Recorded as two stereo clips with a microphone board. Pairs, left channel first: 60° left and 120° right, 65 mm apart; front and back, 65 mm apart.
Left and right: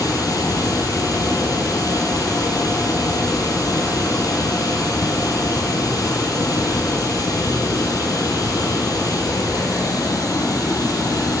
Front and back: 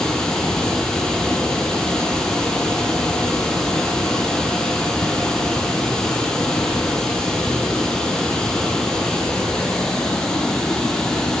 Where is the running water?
80° left, 0.8 m.